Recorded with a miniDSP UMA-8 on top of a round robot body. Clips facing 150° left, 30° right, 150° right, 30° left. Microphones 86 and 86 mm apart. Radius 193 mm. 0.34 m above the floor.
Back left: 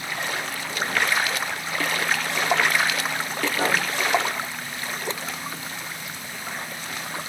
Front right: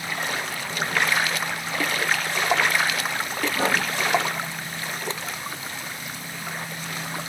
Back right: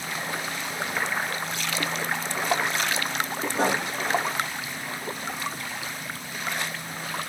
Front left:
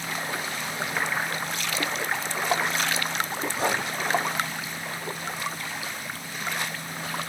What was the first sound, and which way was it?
Writing, 120° right.